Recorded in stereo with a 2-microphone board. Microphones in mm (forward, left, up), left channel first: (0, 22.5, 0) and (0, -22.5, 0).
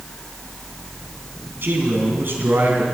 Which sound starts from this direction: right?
A man speaking, at 1.6 s.